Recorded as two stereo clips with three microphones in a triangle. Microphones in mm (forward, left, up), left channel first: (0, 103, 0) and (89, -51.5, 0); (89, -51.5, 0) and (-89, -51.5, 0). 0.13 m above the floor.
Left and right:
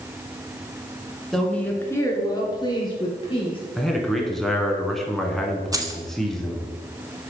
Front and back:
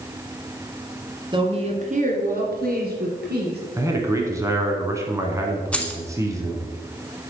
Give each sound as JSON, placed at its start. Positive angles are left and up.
{"t": 1.3, "sound": "a woman speaking", "azimuth_deg": -155, "distance_m": 1.1}
{"t": 3.8, "sound": "a man speaking", "azimuth_deg": -160, "distance_m": 1.0}
{"t": 5.7, "sound": "keys jangling", "azimuth_deg": -70, "distance_m": 0.8}